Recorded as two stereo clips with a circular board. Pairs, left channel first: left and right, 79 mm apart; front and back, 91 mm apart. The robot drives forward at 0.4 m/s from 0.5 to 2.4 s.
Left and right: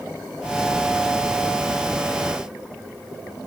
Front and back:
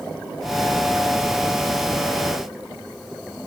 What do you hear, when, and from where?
Only background noise.